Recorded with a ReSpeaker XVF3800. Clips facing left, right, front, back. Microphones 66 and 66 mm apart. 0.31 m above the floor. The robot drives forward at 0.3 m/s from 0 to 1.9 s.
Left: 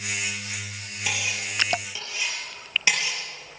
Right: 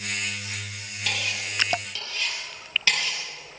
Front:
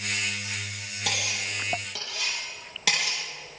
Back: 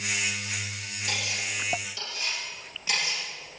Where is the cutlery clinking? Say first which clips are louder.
Even, front 1 dB; 15° left, 5.5 m.